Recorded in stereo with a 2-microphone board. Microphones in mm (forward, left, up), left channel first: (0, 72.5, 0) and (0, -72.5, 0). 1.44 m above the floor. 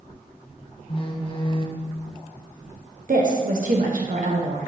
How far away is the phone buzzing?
About 0.7 m.